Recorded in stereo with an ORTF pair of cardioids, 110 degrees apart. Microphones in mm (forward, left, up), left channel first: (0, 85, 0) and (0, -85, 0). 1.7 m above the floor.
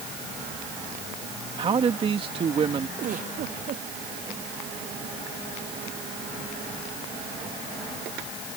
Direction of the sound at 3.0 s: 55° right.